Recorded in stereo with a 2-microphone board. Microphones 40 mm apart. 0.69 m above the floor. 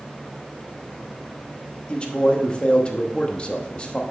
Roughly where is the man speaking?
Left.